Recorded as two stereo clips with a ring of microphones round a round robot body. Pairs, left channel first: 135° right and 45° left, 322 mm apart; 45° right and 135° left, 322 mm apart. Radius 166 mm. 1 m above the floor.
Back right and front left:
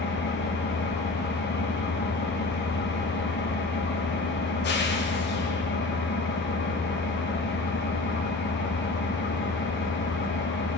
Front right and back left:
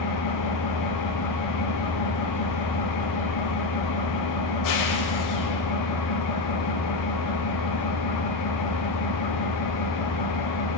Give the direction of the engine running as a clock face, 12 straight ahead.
3 o'clock.